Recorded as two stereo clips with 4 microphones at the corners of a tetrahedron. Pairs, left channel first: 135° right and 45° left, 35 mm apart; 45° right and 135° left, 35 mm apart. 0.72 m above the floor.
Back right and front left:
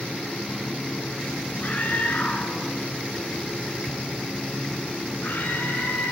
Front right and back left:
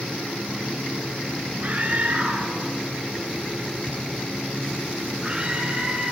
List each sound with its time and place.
1.6 s a scream: 175° right, 8.5 m; by 6.1 s 155° right, 6.5 m